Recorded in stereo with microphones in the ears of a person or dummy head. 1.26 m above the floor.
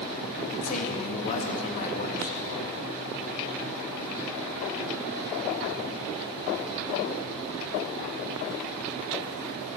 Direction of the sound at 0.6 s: 45° left (ahead or behind).